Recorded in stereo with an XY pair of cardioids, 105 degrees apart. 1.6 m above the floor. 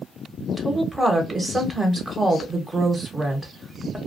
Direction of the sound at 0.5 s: 25° right.